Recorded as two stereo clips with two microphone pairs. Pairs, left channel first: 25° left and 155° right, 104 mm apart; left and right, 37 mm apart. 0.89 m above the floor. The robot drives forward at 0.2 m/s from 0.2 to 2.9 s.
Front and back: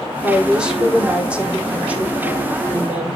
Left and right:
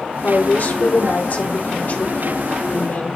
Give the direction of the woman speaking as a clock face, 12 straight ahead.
8 o'clock.